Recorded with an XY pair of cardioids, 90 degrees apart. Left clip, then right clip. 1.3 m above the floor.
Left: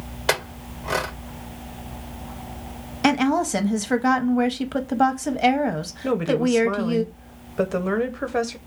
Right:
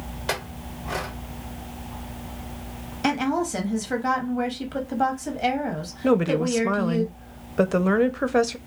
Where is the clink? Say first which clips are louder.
Left 6 dB; 60° left, 0.7 m.